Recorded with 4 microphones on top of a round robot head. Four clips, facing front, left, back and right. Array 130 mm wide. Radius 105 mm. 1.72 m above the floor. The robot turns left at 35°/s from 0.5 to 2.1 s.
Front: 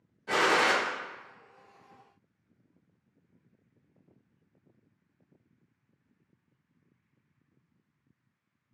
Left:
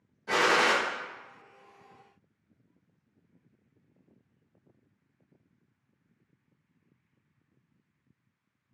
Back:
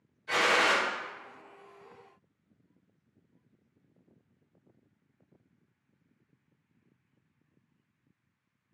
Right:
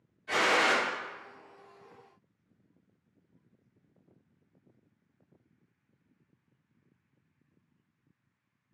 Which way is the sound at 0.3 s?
50° left.